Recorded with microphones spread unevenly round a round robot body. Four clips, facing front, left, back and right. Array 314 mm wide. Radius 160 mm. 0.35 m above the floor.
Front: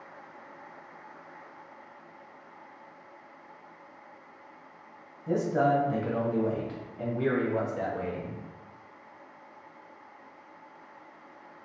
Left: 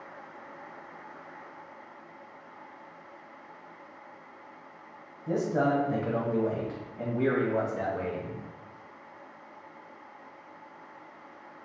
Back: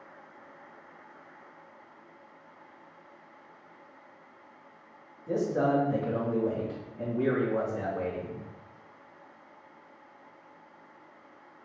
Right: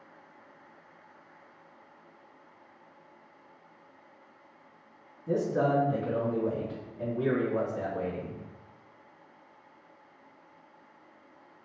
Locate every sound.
5.3 s a man speaking: 40° left, 3 m; by 8.4 s 70° left, 3.5 m